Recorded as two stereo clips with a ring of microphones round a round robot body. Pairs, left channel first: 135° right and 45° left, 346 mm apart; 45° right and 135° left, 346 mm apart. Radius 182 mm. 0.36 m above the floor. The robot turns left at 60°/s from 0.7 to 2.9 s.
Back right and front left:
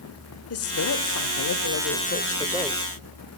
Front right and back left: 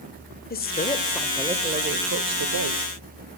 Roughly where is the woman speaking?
Right.